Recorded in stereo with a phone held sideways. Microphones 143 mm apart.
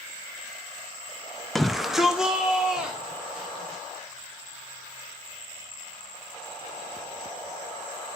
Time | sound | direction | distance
1.6 | a shout | centre (ahead or behind) | 0.5 m